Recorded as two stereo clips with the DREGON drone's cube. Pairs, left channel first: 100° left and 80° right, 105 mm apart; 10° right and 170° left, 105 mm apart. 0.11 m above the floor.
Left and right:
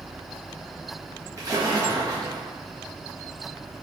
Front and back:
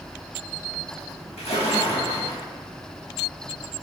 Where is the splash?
20° right, 1.5 m.